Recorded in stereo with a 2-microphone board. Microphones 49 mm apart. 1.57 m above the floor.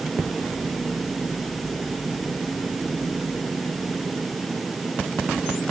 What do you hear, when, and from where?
Only background noise.